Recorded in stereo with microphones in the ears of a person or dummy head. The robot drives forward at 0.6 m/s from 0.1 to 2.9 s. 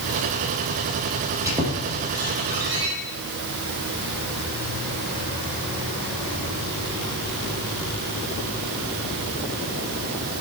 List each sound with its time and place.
1.4 s a squeak: 20° right (ahead or behind), 4.5 m; by 2.9 s 25° right (ahead or behind), 4 m